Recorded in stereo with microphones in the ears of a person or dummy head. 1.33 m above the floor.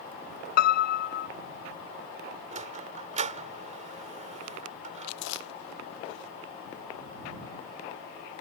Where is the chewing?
75° left (ahead or behind).